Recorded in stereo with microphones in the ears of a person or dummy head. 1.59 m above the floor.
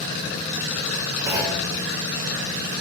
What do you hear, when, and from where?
1.3 s a clunk: 20° right (ahead or behind), 2.5 m